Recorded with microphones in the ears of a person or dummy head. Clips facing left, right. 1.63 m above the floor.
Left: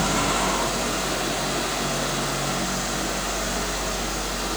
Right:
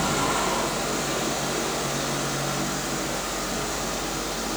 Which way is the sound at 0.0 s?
Centre (ahead or behind).